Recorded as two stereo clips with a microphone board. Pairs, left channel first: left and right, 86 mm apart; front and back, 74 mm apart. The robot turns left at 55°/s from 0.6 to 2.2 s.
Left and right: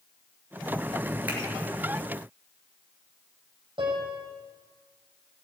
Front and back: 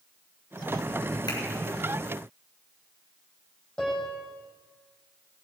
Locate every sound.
1.3 s a finger snap: 20° right, 5 m; by 1.4 s 25° right, 5 m
3.8 s a piano: 80° right, 5 m